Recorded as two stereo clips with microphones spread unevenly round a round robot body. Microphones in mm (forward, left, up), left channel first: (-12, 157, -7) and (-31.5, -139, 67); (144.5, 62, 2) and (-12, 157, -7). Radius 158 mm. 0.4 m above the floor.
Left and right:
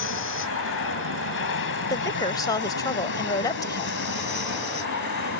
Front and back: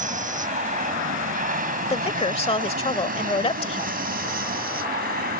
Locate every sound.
0.0 s an aircraft: 110° left; by 5.4 s 120° left
1.9 s a woman speaking: 20° left